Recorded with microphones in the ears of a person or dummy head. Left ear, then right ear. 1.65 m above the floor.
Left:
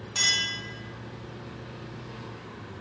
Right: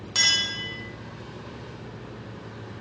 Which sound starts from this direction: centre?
A clink, at 0.1 s.